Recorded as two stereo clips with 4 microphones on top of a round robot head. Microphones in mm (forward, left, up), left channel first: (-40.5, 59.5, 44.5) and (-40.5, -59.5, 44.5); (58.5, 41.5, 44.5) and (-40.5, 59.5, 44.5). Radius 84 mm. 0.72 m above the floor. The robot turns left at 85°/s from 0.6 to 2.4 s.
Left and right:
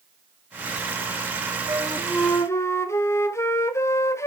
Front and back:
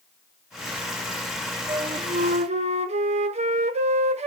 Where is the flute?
140° right, 0.7 m; by 4.3 s 160° left, 0.7 m.